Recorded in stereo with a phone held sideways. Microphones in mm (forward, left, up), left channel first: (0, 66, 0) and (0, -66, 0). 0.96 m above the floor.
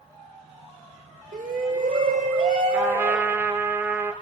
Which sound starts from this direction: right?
A shout, at 1.3 s.